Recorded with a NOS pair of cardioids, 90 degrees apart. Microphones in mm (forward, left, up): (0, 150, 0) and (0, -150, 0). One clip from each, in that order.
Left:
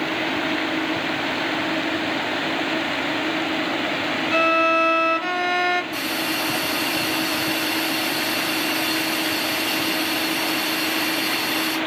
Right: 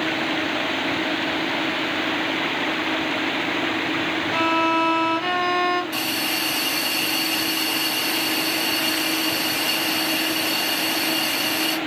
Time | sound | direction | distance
4.3 | a violin | 15° left | 0.8 m
5.9 | a hiss | 60° right | 1.9 m